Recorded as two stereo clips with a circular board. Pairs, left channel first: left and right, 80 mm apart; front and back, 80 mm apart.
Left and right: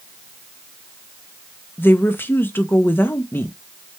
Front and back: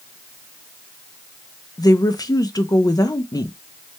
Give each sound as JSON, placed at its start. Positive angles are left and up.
{"t": 1.8, "sound": "a woman speaking", "azimuth_deg": 30, "distance_m": 0.6}